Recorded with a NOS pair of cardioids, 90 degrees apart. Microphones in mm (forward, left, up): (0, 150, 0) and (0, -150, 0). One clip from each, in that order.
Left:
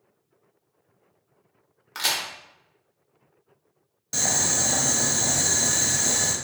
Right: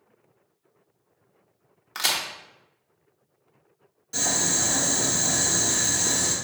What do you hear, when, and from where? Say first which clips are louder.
1.9 s a crack: right 1 dB; 5° right, 0.7 m
4.1 s boiling: left 1 dB; 60° left, 1.1 m